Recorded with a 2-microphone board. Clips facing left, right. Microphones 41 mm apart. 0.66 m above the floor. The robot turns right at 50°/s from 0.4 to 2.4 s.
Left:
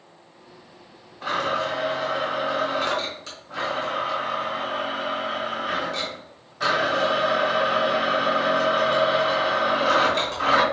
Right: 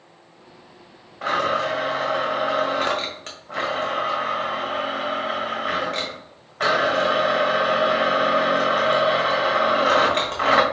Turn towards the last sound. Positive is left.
turn(degrees=-50)